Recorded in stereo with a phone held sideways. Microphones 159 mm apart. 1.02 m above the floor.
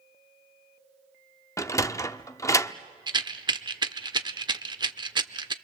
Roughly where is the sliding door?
Centre.